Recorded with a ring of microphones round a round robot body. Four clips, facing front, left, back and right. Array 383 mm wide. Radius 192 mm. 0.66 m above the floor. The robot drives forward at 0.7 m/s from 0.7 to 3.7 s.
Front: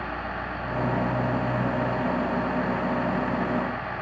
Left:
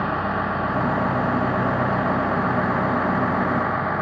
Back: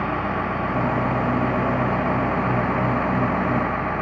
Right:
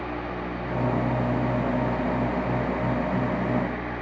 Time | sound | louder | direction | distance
0.0 | a vehicle | left 8 dB, back 8 dB | 125° left | ?